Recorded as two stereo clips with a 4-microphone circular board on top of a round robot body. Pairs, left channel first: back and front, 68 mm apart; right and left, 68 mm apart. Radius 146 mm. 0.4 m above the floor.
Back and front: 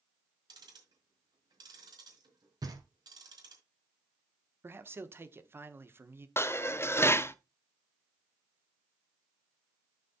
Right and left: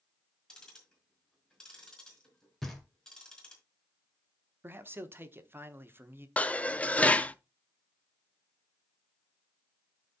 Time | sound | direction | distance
0.5 | ticking | 10° right | 4 m
2.6 | knocking | 5° right | 2.5 m
4.6 | a man speaking | 45° left | 1.1 m
6.4 | dishes clattering | 150° right | 0.8 m